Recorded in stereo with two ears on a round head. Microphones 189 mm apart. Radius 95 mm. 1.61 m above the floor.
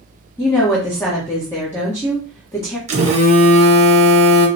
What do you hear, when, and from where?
0.4 s a woman speaking: 15° left (ahead or behind), 1.0 m
2.9 s a phone buzzing: 30° right (ahead or behind), 0.8 m